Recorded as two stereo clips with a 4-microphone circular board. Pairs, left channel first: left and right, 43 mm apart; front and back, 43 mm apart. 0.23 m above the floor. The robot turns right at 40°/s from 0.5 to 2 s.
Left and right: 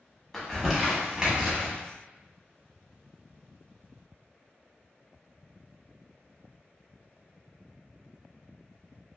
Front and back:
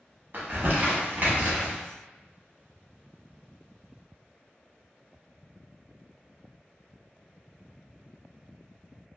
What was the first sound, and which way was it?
Crumpling, 175° left.